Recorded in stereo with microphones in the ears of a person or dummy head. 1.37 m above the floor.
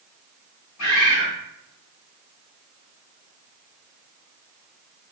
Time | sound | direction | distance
0.8 | a bird | 80° left | 1.3 m